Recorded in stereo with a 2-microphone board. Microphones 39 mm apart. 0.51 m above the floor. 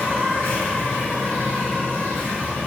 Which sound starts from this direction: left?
An insect, at 0.0 s.